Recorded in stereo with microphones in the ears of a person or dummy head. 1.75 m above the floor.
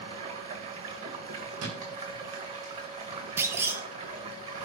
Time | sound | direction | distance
0.0 | running water | 35° right (ahead or behind) | 2 m
1.6 | a thud | 75° right (ahead or behind) | 4.5 m
3.4 | a clunk | 15° right (ahead or behind) | 1.6 m